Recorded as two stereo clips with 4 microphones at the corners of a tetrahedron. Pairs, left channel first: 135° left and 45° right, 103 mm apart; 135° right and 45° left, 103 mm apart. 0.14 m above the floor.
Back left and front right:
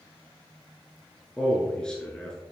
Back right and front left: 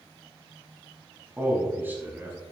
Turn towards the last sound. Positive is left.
turn(degrees=70)